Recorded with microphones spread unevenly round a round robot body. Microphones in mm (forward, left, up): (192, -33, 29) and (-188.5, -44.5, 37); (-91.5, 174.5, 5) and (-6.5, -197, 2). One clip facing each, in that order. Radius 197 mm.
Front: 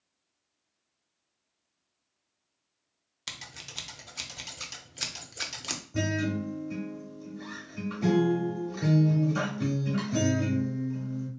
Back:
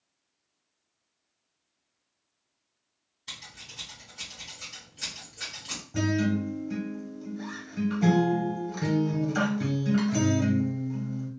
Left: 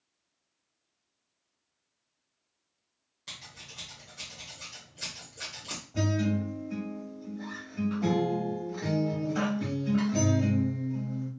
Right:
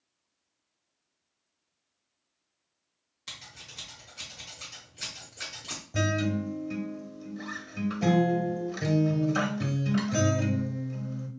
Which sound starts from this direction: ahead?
Scissors, at 3.3 s.